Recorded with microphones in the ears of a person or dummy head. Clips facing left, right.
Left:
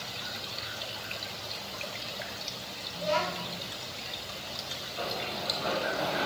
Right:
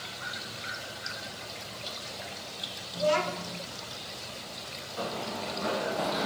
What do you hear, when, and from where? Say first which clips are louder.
2.9 s a child speaking: right 4 dB; 50° right (ahead or behind), 1.5 m
5.0 s running footsteps: right 1 dB; 60° right (ahead or behind), 4 m; by 6.3 s 55° right (ahead or behind), 3.5 m